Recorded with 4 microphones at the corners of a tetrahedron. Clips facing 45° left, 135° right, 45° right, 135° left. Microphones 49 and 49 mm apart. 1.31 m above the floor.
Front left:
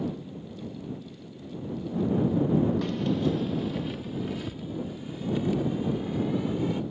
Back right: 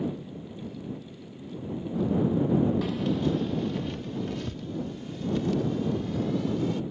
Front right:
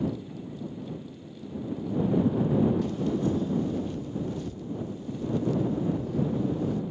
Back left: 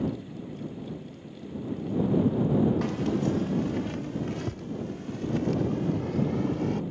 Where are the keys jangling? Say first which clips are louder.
Even, even; 140° left; by 6.8 s 120° left.